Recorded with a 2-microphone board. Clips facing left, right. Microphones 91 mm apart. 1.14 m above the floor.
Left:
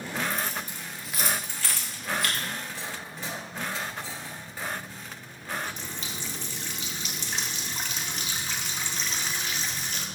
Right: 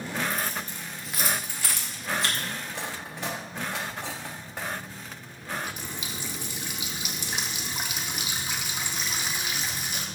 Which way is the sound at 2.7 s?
65° right (ahead or behind).